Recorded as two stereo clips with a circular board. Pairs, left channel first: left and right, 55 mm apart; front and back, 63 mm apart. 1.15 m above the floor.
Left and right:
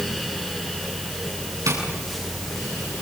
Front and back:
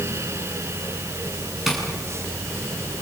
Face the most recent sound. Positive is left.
turn(degrees=-90)